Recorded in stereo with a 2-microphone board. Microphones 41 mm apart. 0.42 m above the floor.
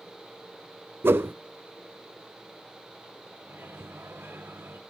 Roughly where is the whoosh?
Right.